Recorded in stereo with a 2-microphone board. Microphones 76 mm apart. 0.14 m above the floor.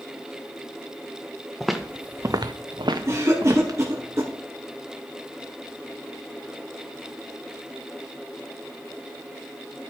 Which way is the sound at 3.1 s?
40° right (ahead or behind).